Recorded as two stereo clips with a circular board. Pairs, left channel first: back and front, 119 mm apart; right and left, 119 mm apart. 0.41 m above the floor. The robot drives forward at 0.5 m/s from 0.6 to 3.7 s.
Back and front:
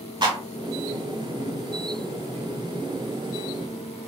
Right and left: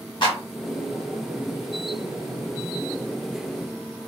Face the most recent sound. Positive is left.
turn(degrees=-85)